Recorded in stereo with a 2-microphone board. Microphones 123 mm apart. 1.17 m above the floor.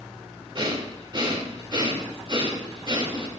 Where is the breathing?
40° right (ahead or behind), 2.5 m.